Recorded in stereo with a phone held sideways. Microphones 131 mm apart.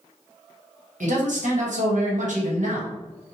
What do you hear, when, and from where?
1.0 s a man speaking: 75° right (ahead or behind), 1.0 m